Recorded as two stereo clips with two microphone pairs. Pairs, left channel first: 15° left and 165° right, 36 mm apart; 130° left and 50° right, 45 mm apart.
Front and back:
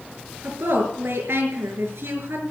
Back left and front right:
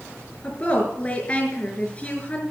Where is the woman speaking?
170° right, 4.5 m.